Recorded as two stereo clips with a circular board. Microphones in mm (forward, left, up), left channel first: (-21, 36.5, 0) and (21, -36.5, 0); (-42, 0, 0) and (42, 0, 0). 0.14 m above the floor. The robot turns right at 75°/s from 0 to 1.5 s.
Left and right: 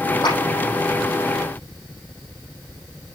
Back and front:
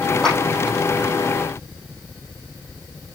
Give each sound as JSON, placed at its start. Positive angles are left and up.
{"t": 0.2, "sound": "a clap", "azimuth_deg": 95, "distance_m": 5.5}